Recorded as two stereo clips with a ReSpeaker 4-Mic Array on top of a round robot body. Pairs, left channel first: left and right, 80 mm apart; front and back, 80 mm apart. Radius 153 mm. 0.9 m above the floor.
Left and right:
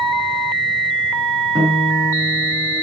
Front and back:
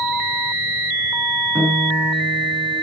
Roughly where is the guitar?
Behind right.